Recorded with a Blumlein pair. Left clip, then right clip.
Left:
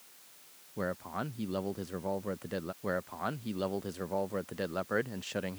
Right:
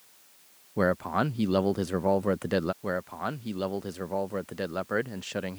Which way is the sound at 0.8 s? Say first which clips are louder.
Right 10 dB; 60° right.